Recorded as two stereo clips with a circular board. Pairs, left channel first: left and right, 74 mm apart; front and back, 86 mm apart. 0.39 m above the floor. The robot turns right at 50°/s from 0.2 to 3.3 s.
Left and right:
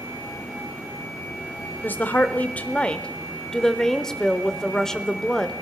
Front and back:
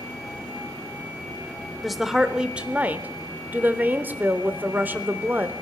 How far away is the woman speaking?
About 0.8 m.